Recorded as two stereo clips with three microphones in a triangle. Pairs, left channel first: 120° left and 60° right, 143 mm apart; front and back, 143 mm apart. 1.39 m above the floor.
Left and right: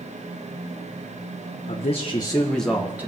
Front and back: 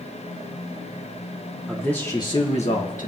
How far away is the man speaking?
About 1.6 m.